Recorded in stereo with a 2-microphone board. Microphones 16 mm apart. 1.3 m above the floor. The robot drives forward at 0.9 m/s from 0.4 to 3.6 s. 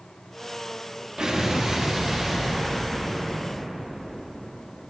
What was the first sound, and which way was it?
An explosion, 60° right (ahead or behind).